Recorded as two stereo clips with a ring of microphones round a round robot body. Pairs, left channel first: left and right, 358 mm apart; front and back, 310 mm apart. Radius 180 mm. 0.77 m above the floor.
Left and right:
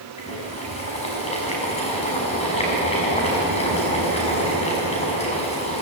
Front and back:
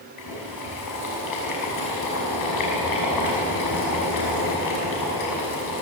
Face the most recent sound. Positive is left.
turn(degrees=15)